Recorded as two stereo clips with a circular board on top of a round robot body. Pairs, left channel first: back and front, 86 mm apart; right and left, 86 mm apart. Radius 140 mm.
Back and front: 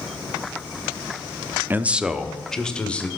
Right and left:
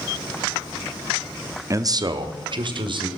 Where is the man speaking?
55° left, 1.0 m; by 3.1 s 105° left, 2 m.